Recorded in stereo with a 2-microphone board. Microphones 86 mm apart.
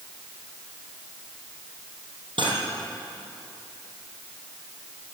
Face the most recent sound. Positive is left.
turn(degrees=-75)  # may be behind; listen again after turning